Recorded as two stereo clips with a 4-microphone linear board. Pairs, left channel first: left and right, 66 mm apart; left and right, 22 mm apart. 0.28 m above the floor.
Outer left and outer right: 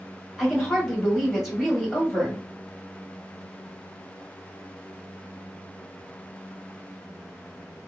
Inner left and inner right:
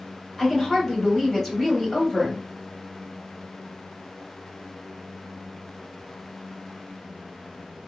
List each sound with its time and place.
0.4 s a woman speaking: centre (ahead or behind), 1.2 m